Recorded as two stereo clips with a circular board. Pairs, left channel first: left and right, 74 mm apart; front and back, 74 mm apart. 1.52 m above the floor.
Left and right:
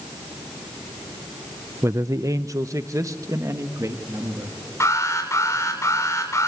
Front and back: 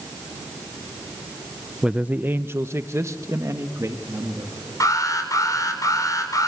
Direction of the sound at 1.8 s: 105° right.